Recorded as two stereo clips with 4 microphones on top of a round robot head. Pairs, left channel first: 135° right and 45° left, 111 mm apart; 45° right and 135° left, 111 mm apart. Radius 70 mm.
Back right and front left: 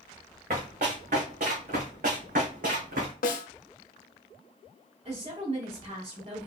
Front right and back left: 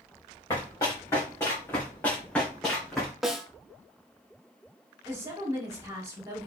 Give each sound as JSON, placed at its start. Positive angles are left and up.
{"t": 0.5, "sound": "running footsteps", "azimuth_deg": 15, "distance_m": 3.0}
{"t": 3.2, "sound": "a snare drum", "azimuth_deg": -135, "distance_m": 0.7}
{"t": 5.0, "sound": "a woman speaking", "azimuth_deg": 70, "distance_m": 2.5}